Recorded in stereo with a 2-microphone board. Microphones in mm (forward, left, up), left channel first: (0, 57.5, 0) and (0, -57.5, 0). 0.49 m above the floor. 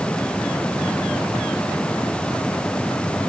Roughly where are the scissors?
I don't hear scissors.